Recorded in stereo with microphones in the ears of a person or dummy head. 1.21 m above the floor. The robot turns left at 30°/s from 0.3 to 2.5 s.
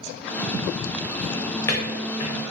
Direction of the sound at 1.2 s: Centre (ahead or behind).